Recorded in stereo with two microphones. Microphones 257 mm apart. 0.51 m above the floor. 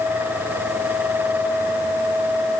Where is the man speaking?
No man speaking in this recording.